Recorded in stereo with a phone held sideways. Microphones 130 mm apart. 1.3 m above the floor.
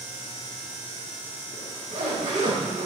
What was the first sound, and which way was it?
A zipper, 75° right (ahead or behind).